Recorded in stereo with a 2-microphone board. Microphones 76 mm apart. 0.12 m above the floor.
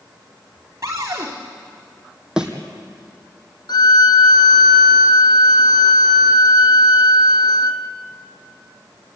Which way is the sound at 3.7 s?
65° left (ahead or behind).